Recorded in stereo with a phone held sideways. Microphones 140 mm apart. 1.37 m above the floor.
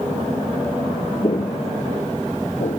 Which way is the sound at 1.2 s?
40° left (ahead or behind).